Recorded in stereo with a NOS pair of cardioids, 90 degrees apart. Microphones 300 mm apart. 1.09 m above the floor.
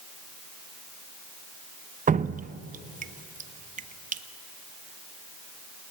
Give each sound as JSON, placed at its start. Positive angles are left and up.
{"t": 2.1, "sound": "dripping", "azimuth_deg": -25, "distance_m": 0.7}